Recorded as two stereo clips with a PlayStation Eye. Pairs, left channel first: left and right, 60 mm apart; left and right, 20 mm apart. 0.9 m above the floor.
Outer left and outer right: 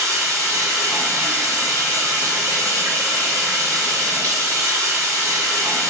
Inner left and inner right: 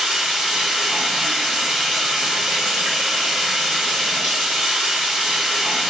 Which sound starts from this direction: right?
Running water, at 0.0 s.